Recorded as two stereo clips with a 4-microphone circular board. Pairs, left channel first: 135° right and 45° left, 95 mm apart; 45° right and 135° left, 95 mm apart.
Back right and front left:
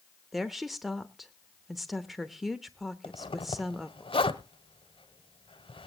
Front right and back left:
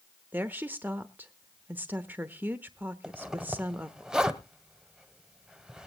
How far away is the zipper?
About 0.9 m.